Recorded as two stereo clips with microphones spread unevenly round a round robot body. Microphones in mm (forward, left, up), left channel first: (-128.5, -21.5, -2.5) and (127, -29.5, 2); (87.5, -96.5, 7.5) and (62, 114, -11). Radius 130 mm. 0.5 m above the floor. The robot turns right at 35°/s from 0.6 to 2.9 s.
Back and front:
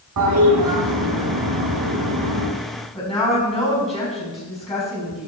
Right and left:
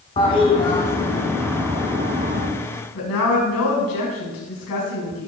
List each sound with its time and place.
0.2 s a toilet flushing: 15° right, 4.5 m; by 2.5 s 50° left, 4.5 m
3.0 s a woman speaking: 115° right, 5 m